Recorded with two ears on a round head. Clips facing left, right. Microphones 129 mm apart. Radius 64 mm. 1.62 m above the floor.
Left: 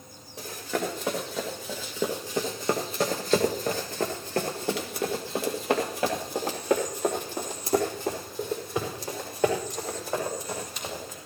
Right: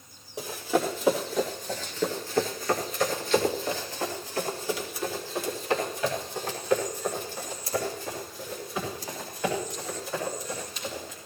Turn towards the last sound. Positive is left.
turn(degrees=50)  # may be behind; listen again after turning